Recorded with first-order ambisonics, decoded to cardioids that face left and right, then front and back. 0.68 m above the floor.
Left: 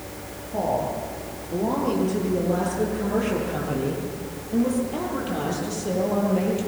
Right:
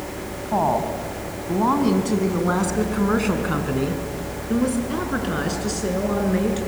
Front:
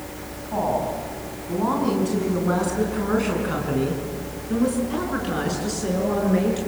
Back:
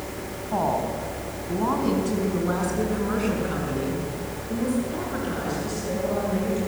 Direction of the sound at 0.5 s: 105° right.